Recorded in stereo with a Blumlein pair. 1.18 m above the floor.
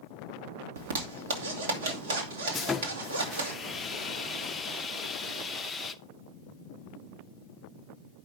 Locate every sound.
0.8 s a zipper: 65° right, 1.8 m
2.5 s sawing: 10° left, 0.7 m